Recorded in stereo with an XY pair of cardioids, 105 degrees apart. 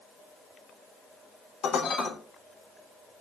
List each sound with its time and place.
1.6 s dishes clattering: 60° left, 3.5 m